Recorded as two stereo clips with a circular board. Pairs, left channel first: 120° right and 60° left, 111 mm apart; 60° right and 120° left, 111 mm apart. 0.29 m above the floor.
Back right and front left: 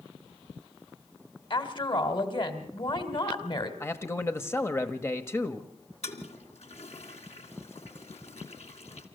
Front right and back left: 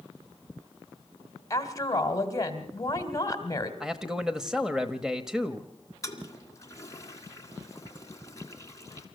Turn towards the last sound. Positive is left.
turn(degrees=-120)